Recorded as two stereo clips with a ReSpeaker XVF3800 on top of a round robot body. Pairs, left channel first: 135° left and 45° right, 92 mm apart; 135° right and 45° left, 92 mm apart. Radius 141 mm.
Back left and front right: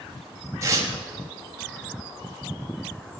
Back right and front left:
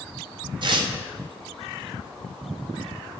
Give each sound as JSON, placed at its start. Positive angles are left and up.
{"t": 0.6, "sound": "tearing paper", "azimuth_deg": 15, "distance_m": 1.8}